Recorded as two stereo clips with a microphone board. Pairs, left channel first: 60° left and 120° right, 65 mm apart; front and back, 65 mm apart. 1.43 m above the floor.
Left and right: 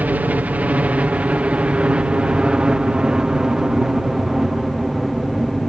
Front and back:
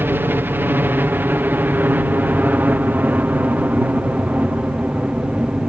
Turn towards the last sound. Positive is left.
turn(degrees=150)